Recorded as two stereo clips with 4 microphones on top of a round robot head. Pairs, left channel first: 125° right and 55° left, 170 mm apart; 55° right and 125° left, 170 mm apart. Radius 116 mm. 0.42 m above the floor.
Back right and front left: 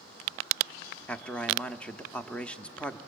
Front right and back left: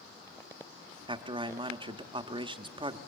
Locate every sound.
1.1 s a man speaking: 155° left, 0.9 m